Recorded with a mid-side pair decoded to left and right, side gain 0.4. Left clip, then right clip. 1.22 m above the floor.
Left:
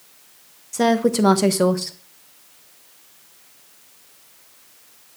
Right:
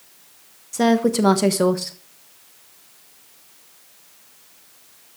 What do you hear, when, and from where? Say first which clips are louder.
0.7 s a woman speaking: even; 5° left, 1.4 m